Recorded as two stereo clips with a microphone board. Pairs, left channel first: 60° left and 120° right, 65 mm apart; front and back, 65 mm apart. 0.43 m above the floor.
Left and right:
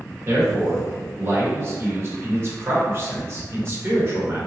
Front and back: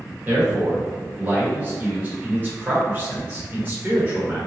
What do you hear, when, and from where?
0.2 s a man speaking: 130° right, 1.3 m